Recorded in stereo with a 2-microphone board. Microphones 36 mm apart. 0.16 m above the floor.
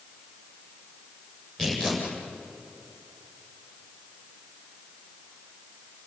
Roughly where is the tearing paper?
Centre.